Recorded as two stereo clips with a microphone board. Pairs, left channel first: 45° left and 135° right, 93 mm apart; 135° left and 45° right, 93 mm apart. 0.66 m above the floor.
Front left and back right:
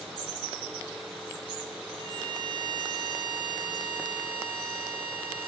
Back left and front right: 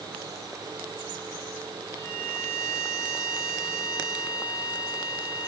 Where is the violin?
165° right, 6.5 m.